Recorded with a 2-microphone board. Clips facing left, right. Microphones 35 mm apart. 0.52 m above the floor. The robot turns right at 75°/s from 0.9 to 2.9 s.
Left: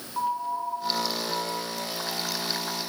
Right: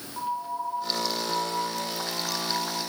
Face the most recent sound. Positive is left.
turn(degrees=-55)